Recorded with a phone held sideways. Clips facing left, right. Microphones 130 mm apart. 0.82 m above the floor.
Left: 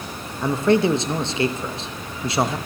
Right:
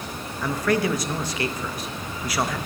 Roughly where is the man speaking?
Left.